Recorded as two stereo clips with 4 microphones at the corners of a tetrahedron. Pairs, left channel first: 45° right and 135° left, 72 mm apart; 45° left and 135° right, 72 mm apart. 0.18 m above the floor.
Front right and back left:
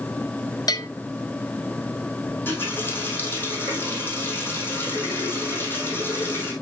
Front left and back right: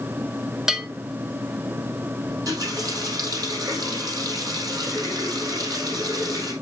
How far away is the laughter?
No laughter in this recording.